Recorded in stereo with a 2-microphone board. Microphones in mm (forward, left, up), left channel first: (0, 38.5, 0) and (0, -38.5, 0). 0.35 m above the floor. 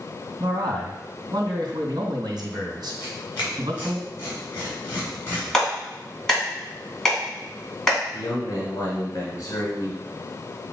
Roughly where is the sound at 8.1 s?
Left.